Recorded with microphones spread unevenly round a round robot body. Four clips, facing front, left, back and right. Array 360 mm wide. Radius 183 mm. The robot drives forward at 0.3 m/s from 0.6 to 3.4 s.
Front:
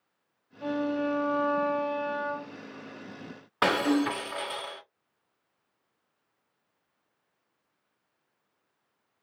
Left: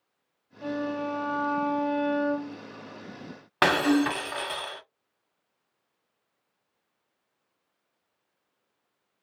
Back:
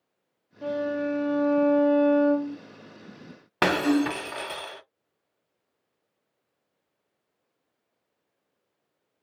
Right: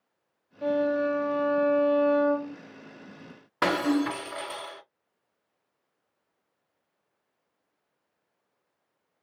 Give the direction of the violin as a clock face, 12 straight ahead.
4 o'clock.